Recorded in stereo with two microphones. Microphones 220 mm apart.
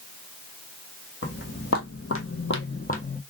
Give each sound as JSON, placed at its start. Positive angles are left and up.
{"t": 1.2, "sound": "footsteps", "side_deg": 70, "distance_m": 1.3}